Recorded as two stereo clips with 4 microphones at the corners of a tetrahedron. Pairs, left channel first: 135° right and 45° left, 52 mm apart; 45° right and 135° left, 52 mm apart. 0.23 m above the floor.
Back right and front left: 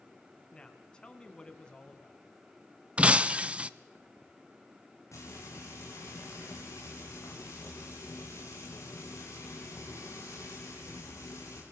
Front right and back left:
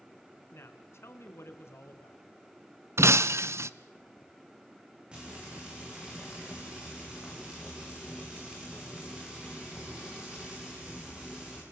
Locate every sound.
0.5 s a woman speaking: 65° right, 2.5 m
3.0 s breaking glass: 110° left, 0.6 m
5.1 s frying: 155° right, 9 m